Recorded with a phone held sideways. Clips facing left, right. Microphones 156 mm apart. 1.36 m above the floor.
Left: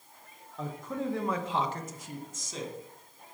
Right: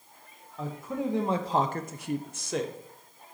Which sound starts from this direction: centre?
A man speaking, at 0.6 s.